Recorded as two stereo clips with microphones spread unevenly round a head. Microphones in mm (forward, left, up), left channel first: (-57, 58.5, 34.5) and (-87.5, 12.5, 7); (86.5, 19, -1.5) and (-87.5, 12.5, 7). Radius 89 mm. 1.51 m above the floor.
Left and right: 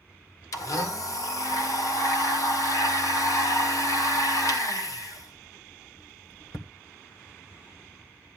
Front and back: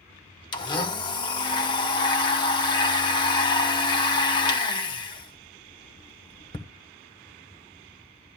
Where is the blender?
65° left, 1.1 m.